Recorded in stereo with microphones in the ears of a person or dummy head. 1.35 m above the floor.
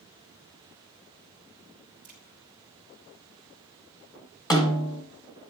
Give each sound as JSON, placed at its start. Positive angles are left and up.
{"t": 2.0, "sound": "a crack", "side_deg": -5, "distance_m": 2.5}
{"t": 4.5, "sound": "a snare drum", "side_deg": 15, "distance_m": 1.2}